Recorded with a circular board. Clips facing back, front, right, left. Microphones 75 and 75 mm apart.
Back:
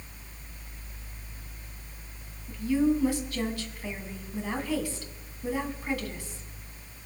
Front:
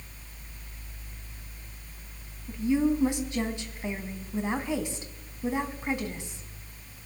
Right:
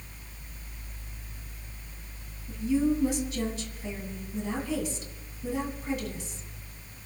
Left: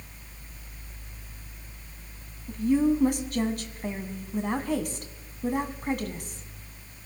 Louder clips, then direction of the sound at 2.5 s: Even, left 3 dB; 65° left.